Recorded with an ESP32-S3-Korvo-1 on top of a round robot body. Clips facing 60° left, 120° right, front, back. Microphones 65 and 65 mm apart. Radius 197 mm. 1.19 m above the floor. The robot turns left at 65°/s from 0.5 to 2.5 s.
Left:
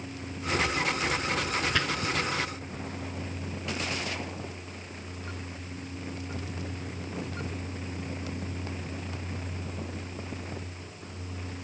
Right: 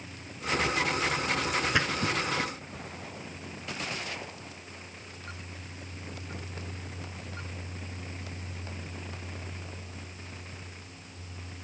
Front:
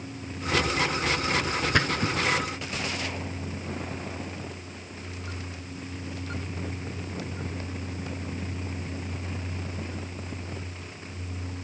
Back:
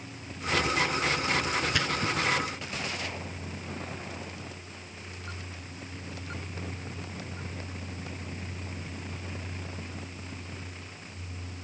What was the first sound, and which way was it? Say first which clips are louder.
A splash: right 1 dB, front 3 dB; 45° right.